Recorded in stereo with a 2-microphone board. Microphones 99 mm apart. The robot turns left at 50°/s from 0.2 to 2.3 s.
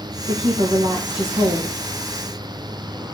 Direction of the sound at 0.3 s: 55° right.